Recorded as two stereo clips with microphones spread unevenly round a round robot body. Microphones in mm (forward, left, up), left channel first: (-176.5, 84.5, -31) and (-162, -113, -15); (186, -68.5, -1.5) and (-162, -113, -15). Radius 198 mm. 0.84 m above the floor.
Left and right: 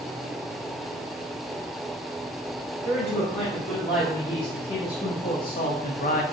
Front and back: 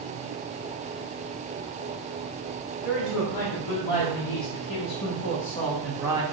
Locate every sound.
2.8 s a man speaking: 20° left, 2.5 m; by 6.2 s 115° left, 1.2 m